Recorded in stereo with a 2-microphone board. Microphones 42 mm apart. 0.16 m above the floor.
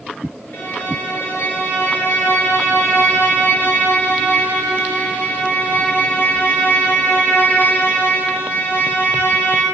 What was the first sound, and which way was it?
A violin, 55° left (ahead or behind).